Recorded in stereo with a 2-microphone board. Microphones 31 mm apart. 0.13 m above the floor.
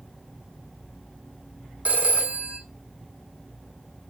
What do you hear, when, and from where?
1.9 s a phone ringing: 55° right (ahead or behind), 3 m